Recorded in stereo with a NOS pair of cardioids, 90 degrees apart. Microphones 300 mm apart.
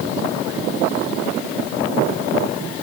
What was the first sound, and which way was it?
Only background noise.